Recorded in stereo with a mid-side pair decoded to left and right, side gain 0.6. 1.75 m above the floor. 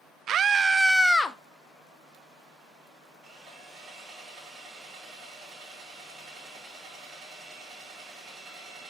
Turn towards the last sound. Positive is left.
turn(degrees=-40)